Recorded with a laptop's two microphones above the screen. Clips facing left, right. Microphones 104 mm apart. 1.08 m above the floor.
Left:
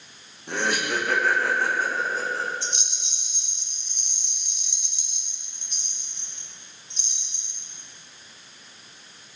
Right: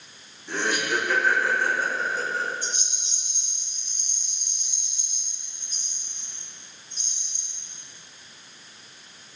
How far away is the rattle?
About 1.1 m.